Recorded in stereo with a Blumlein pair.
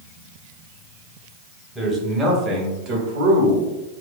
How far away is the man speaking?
About 1.1 m.